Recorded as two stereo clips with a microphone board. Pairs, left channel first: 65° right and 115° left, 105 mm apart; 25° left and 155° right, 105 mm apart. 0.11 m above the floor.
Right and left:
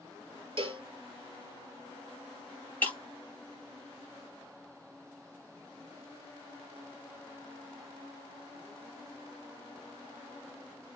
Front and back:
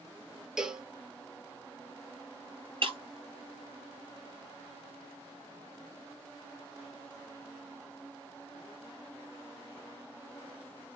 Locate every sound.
0.6 s a cowbell: 120° left, 0.6 m
2.8 s breaking glass: 145° right, 0.9 m